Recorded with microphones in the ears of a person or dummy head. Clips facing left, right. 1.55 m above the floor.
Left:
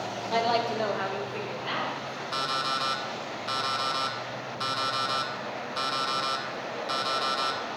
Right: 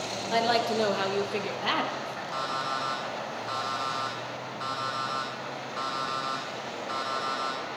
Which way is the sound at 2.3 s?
45° left (ahead or behind).